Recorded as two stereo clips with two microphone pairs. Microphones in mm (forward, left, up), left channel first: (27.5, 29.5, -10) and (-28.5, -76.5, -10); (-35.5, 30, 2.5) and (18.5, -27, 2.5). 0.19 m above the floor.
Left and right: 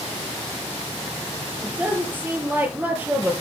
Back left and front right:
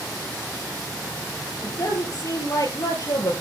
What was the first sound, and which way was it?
A woman speaking, 170° left.